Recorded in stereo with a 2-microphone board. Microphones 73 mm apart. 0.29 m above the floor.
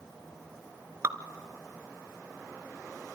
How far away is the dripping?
About 0.8 m.